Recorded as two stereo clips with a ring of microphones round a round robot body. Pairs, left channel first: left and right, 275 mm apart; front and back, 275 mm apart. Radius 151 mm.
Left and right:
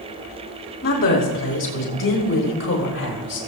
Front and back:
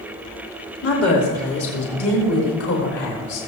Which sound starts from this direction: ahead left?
A woman speaking, at 0.8 s.